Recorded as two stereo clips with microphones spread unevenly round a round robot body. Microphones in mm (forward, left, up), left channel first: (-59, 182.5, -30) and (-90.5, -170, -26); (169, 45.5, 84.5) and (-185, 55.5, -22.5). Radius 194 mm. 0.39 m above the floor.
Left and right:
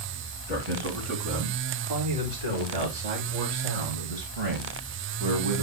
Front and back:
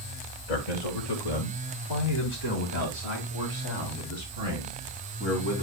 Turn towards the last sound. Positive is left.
turn(degrees=-90)